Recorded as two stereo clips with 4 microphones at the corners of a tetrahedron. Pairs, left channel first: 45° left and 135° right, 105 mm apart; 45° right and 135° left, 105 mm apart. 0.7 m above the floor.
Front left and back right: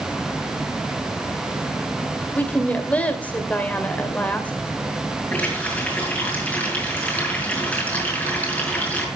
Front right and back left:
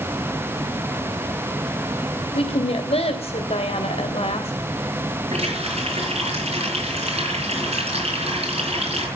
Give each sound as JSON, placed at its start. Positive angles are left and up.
{"t": 2.3, "sound": "a woman speaking", "azimuth_deg": -30, "distance_m": 2.5}
{"t": 5.3, "sound": "a running tap", "azimuth_deg": 120, "distance_m": 7.5}